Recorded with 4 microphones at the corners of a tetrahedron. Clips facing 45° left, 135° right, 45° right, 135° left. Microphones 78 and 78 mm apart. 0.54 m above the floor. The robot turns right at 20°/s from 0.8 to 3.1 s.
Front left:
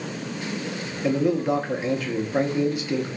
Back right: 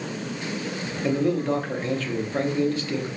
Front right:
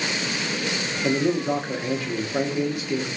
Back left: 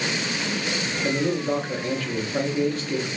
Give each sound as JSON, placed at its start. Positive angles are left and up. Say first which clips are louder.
{"t": 1.0, "sound": "a man speaking", "louder": "front left 1 dB, front right 2 dB", "azimuth_deg": -25, "distance_m": 0.6}